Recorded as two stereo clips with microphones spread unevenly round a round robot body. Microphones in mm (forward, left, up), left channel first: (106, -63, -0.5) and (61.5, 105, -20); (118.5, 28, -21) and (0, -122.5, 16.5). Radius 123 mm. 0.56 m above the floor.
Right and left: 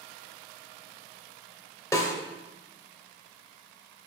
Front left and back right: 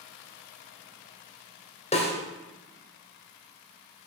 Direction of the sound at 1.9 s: Straight ahead.